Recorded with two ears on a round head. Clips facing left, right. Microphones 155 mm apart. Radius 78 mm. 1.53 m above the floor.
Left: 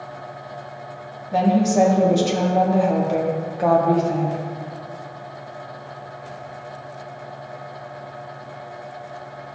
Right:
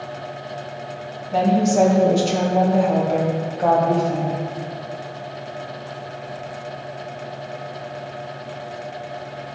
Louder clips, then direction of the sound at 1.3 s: Even; 5° left (ahead or behind).